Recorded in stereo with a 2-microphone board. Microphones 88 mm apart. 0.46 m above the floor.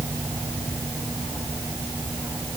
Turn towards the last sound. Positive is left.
No sound to turn to.